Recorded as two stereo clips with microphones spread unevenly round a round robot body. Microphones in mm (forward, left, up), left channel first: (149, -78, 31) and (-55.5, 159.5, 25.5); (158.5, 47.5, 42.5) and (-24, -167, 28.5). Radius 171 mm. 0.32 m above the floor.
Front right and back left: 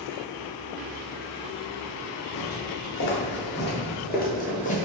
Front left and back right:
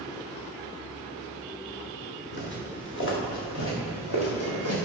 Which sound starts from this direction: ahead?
Footsteps, at 2.3 s.